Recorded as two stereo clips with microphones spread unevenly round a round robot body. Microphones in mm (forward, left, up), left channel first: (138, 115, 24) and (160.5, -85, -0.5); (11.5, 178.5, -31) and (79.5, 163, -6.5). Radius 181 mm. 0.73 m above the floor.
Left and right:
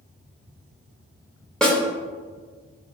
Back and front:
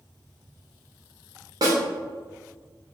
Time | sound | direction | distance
1.6 | a snare drum | straight ahead | 0.9 m